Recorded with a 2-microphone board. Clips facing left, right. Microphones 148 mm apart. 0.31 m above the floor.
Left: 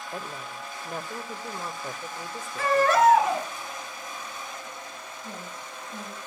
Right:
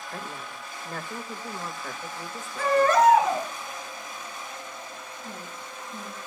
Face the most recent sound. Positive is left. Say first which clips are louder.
# left 1 dB
turn(degrees=80)